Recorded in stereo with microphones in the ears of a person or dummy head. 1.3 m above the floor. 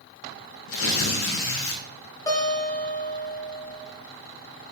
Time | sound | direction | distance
0.7 | tearing paper | 65° left (ahead or behind) | 0.6 m
2.3 | a guitar | 20° left (ahead or behind) | 1.2 m